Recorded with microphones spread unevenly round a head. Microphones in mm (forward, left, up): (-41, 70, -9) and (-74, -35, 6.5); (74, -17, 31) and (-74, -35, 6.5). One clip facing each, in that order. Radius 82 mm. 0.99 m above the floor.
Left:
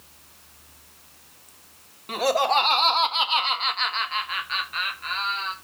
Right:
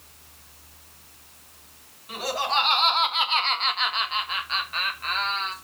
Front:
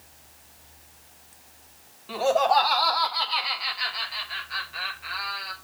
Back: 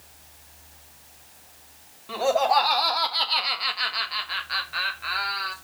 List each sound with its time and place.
2.1 s laughter: 95° left, 1.9 m; by 5.5 s 150° right, 2.5 m